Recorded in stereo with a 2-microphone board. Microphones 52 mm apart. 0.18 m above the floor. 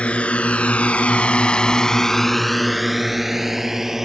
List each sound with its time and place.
0.0 s a drone: 25° left (ahead or behind); by 4.0 s 5° right (ahead or behind)